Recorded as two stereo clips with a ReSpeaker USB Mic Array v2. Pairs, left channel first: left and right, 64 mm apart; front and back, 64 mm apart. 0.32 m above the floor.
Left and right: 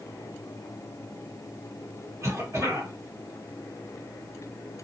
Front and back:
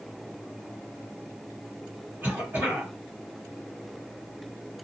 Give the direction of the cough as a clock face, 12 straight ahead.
4 o'clock.